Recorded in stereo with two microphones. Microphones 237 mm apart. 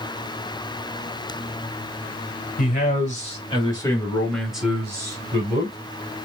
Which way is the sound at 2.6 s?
40° left (ahead or behind).